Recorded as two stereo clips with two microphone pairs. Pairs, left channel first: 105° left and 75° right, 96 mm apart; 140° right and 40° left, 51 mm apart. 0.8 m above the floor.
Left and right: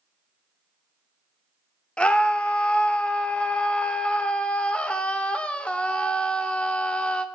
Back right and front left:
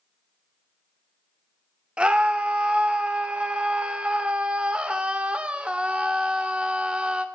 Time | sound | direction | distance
2.0 | a scream | 50° left | 0.5 m